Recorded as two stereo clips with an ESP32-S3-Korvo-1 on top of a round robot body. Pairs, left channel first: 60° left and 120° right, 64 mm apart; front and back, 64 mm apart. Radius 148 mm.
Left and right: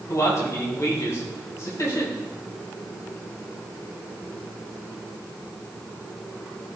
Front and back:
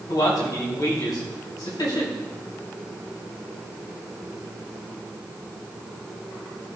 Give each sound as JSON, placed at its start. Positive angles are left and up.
{"t": 0.1, "sound": "a man speaking", "azimuth_deg": 15, "distance_m": 4.0}